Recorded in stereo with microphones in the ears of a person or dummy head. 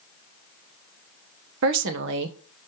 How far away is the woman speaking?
About 1.2 m.